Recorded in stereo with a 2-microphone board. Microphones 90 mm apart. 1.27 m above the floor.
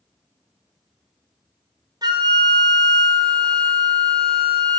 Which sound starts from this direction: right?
A flute, at 2.0 s.